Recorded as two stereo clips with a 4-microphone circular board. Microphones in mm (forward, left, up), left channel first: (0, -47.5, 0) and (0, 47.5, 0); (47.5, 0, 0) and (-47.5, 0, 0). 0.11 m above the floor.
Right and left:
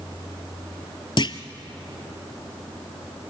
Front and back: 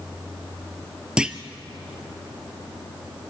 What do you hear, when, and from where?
1.2 s a clunk: 100° right, 0.9 m